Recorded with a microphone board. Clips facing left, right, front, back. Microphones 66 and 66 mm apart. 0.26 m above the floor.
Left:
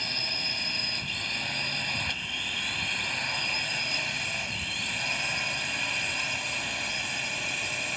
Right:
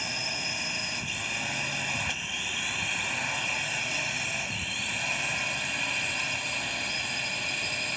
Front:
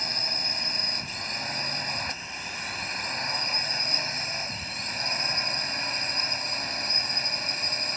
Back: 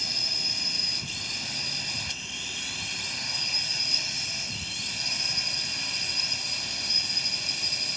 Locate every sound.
0.0 s a drone: 15° right; by 8.0 s 5° left